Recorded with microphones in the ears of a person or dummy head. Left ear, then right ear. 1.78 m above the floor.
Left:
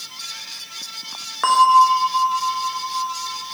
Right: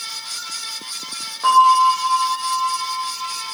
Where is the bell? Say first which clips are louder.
Even; 65° left (ahead or behind), 1.0 m.